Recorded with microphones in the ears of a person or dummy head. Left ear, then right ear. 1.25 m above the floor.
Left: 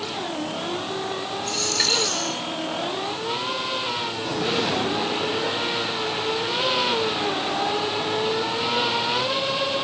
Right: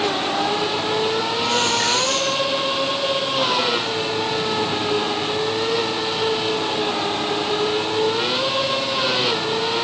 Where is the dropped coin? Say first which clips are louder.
Right 1 dB; 35° left (ahead or behind), 6.5 m.